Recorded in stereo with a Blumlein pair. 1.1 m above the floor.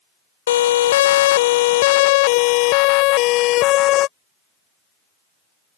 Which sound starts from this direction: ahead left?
A siren, at 0.5 s.